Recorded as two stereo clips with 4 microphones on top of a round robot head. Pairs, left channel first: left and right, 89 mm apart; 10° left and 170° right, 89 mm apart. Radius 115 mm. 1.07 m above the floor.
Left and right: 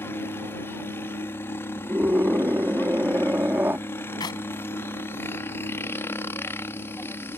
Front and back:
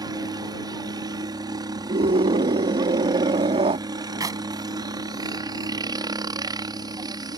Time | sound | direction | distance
0.0 | a helicopter | 150° left | ?
1.9 | a scream | 165° right | ?
4.2 | a clap | 140° left | ?